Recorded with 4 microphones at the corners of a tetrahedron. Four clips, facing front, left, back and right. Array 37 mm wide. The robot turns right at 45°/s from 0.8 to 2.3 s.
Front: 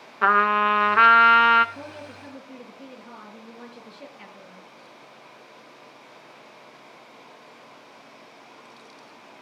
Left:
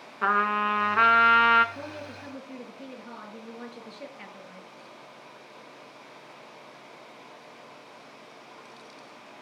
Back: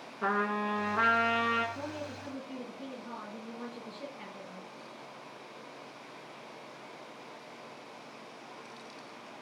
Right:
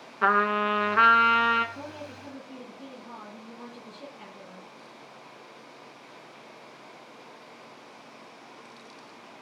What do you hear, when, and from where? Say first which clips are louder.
0.2 s a trumpet: right 1 dB, front 12 dB; 5° right, 0.7 m; by 1.6 s 30° left, 0.7 m
1.8 s a woman speaking: left 1 dB, even; 65° left, 7.5 m; by 4.7 s 85° left, 7.5 m